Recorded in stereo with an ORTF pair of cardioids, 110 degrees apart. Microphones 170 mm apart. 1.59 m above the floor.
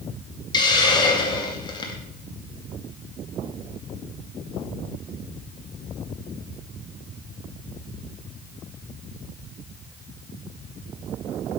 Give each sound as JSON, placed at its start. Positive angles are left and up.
{"t": 0.5, "sound": "a hiss", "azimuth_deg": 25, "distance_m": 2.0}